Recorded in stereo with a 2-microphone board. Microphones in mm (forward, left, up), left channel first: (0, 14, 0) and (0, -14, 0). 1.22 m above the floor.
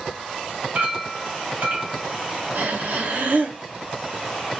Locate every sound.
0.8 s a clink: 60° right (ahead or behind), 1.2 m
2.5 s breathing: 70° right (ahead or behind), 0.8 m